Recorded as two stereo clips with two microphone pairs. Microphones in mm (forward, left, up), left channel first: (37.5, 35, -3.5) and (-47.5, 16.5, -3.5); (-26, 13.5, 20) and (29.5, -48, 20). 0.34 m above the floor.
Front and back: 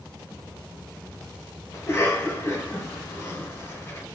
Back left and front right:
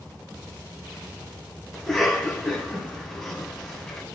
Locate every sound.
1.7 s a cough: 50° left, 1.4 m